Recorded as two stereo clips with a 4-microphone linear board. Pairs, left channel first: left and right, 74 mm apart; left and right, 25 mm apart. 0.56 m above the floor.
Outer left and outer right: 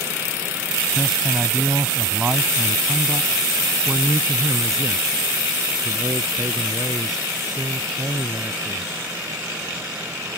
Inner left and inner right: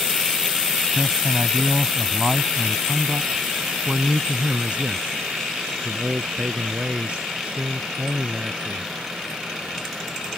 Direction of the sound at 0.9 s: Centre (ahead or behind).